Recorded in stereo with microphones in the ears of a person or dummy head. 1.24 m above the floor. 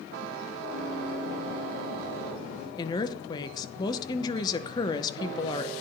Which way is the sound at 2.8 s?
20° left (ahead or behind).